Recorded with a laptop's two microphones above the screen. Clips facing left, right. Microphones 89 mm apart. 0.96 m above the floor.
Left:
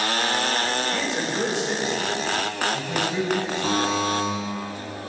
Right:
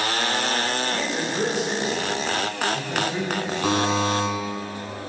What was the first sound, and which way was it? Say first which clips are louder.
A man speaking: even; 5° right (ahead or behind).